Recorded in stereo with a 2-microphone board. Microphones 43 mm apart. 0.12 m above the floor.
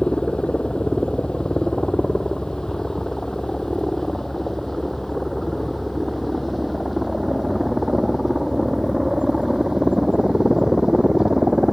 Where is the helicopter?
20° left (ahead or behind); by 11.7 s 10° right (ahead or behind).